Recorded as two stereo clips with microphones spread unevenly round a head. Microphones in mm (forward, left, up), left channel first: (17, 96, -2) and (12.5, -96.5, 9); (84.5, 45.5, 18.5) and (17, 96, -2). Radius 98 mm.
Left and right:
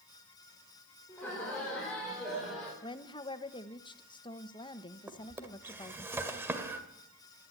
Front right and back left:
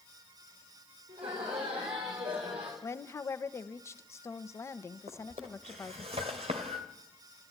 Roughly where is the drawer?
Behind.